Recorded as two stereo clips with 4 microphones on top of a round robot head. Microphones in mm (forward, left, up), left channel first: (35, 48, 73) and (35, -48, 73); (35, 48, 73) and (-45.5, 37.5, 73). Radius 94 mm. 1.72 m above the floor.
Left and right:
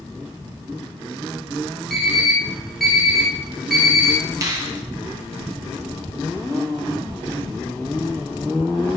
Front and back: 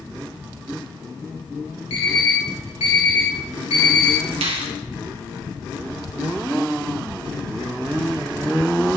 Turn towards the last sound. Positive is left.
turn(degrees=-155)